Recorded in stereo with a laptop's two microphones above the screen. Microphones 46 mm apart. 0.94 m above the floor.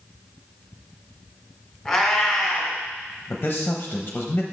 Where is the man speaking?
35° left (ahead or behind), 0.7 m.